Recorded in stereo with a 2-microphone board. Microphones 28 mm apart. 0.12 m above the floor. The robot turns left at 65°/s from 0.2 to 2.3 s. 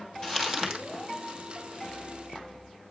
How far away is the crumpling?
About 1.7 m.